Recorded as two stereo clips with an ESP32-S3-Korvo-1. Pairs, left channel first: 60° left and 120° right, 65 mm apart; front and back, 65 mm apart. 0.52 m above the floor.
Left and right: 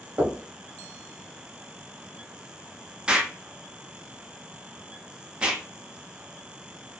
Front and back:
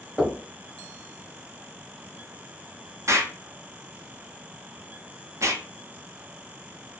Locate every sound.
0.2 s knocking: 95° right, 1.0 m
3.1 s an explosion: 170° left, 0.6 m